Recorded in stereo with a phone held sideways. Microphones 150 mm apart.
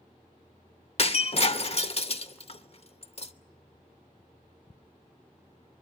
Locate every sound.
1.0 s breaking glass: 45° left (ahead or behind), 0.8 m